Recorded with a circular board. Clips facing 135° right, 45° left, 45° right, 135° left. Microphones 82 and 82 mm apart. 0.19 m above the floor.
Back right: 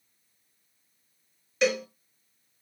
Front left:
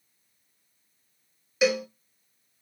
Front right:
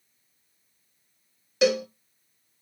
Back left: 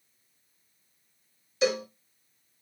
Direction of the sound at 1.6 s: 40° right.